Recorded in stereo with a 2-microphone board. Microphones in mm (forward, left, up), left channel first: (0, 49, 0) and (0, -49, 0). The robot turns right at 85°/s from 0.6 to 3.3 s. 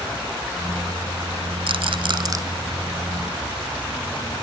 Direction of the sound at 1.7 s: 65° right (ahead or behind).